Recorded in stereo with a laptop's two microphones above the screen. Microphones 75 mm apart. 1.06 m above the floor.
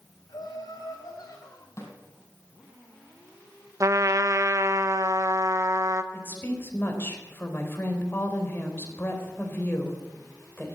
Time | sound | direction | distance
0.3 | laughter | 70° left (ahead or behind) | 5.5 m
1.8 | a snare drum | 45° left (ahead or behind) | 6.5 m
3.8 | a trumpet | 45° right (ahead or behind) | 0.8 m
6.1 | a woman speaking | 30° left (ahead or behind) | 4 m